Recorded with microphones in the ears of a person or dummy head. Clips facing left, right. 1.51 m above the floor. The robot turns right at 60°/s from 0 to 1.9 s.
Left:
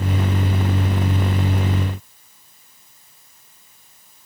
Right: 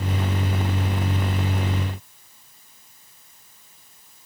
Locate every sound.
Only background noise.